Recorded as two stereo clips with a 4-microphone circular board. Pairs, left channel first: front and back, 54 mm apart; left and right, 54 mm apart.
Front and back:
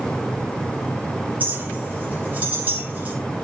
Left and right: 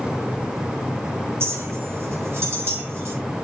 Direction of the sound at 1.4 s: 125° right.